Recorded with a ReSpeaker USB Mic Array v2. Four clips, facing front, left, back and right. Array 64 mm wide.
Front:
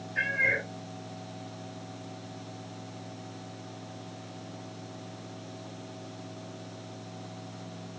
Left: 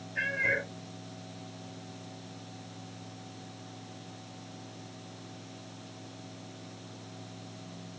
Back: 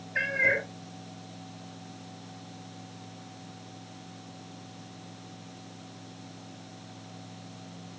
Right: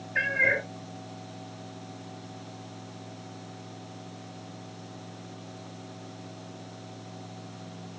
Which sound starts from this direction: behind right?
A cat meowing, at 0.1 s.